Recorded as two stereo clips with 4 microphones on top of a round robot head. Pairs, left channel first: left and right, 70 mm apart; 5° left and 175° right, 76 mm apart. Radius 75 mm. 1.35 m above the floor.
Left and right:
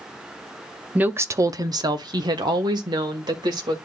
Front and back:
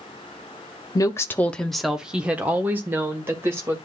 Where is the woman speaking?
20° right, 0.6 m; by 3.8 s 115° right, 2 m.